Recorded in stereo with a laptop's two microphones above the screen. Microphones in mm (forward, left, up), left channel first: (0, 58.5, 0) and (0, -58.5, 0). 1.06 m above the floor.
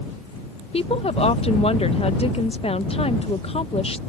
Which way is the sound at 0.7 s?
50° left (ahead or behind).